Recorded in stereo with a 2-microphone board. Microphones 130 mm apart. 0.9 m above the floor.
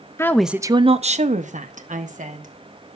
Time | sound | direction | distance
0.2 | a woman speaking | 20° left (ahead or behind) | 0.6 m